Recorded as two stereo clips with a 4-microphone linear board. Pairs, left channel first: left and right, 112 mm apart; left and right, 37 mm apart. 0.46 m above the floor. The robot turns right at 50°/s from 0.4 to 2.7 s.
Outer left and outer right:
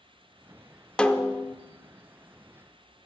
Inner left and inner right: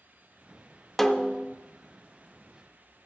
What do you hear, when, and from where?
1.0 s a snare drum: 10° left (ahead or behind), 0.5 m; by 1.6 s 25° left (ahead or behind), 0.5 m